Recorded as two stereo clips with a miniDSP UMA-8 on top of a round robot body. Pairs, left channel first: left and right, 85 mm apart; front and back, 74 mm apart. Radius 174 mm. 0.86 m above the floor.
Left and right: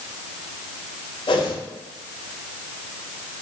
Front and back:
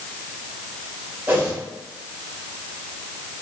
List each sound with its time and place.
1.3 s a whoosh: 115° left, 2.5 m